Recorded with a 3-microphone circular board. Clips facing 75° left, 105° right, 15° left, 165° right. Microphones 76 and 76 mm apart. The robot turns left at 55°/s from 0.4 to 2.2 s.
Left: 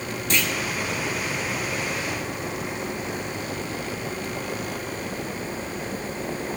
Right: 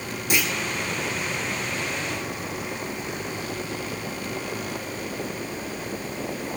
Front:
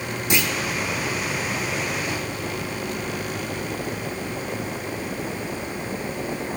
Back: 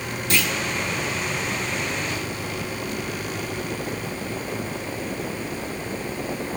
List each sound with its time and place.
0.3 s a clunk: 35° right, 1.2 m; by 0.5 s 45° right, 1.2 m